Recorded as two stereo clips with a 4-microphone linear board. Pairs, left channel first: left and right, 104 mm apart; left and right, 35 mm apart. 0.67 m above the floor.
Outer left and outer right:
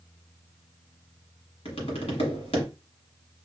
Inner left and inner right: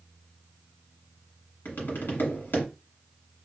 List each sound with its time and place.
1.6 s tapping: 75° left (ahead or behind), 1.5 m